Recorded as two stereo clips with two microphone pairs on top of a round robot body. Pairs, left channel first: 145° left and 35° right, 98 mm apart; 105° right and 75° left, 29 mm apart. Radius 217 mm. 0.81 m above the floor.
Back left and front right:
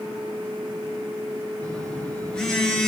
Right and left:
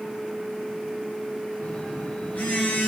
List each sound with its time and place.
1.6 s a phone buzzing: 135° right, 1.8 m